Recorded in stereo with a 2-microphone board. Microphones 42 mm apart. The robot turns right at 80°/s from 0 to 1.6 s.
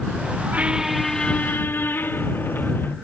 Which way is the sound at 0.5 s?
35° right.